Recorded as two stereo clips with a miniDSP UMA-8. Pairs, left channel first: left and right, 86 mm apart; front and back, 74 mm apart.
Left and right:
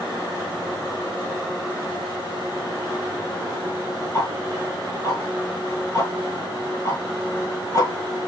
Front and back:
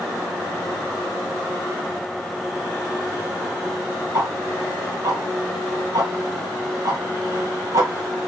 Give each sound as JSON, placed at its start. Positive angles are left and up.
{"t": 4.1, "sound": "ticking", "azimuth_deg": 140, "distance_m": 1.7}